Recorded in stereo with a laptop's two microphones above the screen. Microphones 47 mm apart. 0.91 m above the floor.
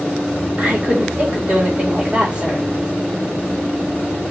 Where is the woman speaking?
25° right (ahead or behind), 3.5 m.